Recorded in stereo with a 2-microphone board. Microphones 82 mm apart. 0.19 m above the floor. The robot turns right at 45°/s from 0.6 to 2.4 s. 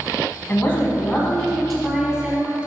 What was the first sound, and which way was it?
A woman speaking, 125° left.